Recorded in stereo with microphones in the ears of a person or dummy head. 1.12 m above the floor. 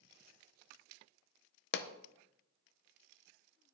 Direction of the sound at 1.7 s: 50° left (ahead or behind).